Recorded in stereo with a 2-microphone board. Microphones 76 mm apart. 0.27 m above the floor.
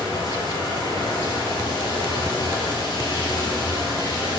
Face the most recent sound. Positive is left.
turn(degrees=80)